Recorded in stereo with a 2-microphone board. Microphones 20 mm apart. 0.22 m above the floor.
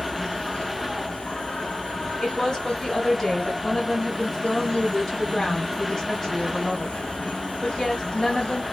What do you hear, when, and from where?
0.0 s an insect: 70° left (ahead or behind), 0.8 m
2.2 s a woman speaking: 25° left (ahead or behind), 1.3 m